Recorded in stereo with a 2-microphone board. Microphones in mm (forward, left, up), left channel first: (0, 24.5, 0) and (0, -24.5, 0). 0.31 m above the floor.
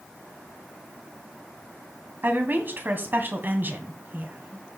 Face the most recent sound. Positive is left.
turn(degrees=-45)  # may be behind; listen again after turning